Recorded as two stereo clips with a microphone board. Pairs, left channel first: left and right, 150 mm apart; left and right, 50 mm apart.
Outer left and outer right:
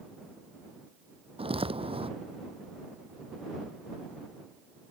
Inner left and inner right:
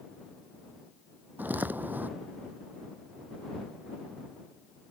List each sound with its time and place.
1.4 s footsteps: 35° right (ahead or behind)